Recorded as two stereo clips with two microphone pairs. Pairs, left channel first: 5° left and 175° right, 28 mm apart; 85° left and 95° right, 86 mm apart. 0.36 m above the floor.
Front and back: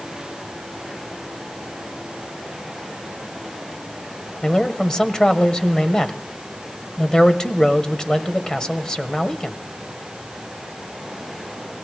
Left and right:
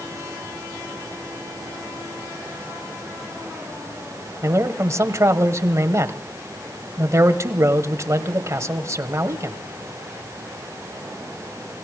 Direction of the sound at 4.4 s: 50° right.